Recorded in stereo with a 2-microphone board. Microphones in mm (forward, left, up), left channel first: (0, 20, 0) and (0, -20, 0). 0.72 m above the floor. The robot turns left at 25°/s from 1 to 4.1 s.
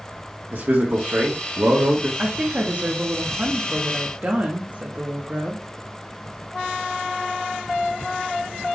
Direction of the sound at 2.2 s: 70° right.